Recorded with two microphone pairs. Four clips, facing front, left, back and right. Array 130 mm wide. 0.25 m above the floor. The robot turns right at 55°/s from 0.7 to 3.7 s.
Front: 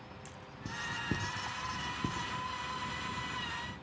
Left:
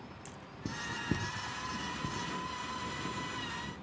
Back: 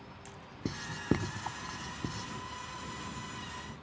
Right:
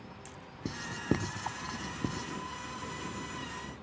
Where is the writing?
160° right; by 2.3 s 75° right.